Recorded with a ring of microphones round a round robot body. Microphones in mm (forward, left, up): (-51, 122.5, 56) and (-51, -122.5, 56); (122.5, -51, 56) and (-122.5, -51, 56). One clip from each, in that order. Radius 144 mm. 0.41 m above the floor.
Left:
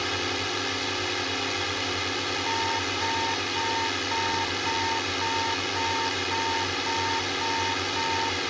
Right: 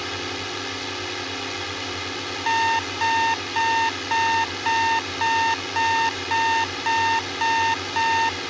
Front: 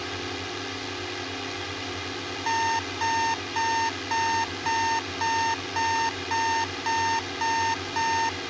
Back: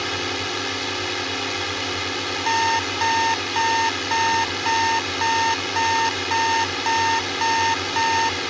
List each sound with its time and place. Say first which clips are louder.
0.0 s a drone: left 1 dB, back 8 dB; 160° left
2.5 s an alarm clock: right 10 dB, back 5 dB; 95° right